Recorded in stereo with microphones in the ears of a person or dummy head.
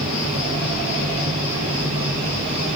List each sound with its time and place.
0.0 s an insect: 35° right (ahead or behind), 6.5 m